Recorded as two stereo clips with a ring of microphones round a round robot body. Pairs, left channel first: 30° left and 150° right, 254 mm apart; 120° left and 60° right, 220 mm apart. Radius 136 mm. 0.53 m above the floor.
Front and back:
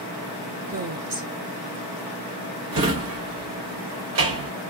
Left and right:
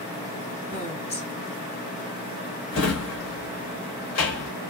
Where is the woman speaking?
Straight behind, 1.7 m.